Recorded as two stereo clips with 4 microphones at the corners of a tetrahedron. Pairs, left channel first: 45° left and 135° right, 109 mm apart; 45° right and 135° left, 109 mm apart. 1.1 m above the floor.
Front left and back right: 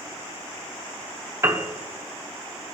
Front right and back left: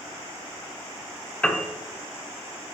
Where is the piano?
110° right, 0.7 m.